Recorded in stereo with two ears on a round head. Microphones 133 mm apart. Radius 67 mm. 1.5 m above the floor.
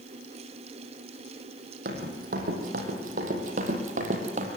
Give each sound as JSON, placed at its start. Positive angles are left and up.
{"t": 1.9, "sound": "running footsteps", "side_deg": -65, "distance_m": 4.5}